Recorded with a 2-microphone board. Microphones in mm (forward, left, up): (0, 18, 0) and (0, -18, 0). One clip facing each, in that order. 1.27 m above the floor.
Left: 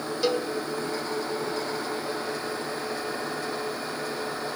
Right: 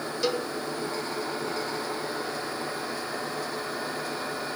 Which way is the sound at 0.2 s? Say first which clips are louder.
Left 2 dB; 10° left (ahead or behind).